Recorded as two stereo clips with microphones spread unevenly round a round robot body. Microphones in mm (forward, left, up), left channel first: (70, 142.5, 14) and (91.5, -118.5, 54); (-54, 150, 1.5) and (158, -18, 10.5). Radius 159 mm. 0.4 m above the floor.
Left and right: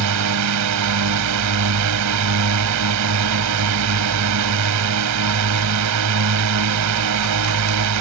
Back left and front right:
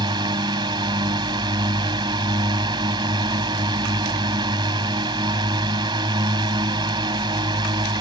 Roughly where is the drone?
Behind right.